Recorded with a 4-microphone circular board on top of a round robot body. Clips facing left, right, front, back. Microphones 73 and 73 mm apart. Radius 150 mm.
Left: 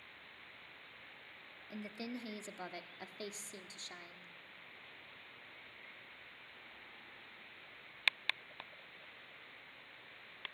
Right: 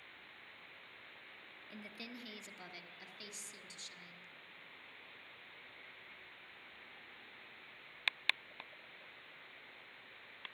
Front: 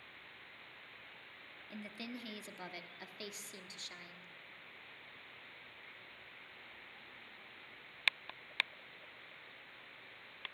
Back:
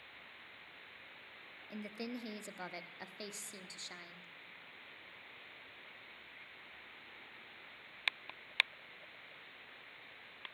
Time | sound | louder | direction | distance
1.7 | a woman speaking | left 7 dB, back 3 dB | 130° left | 0.8 m